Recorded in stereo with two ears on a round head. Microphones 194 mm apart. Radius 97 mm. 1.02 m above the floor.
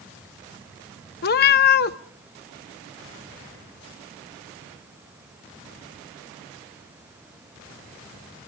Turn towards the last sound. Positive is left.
turn(degrees=45)  # may be behind; listen again after turning